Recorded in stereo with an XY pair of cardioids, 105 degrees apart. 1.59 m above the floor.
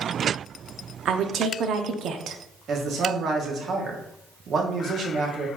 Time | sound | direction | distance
1.1 | a woman speaking | 65° right | 0.7 m
2.7 | a man speaking | 60° right | 1.2 m